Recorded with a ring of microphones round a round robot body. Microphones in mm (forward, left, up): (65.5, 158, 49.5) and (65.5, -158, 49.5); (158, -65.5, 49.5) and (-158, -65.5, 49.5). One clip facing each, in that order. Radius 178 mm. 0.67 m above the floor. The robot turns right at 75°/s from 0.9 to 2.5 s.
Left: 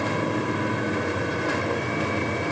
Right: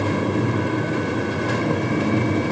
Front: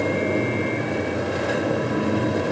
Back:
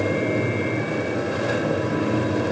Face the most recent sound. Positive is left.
No sound to turn to.